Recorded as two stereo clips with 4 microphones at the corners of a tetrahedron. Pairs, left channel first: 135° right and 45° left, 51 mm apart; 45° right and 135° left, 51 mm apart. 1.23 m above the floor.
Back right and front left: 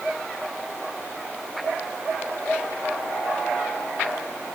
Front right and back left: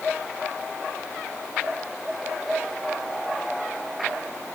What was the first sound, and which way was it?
Only background noise.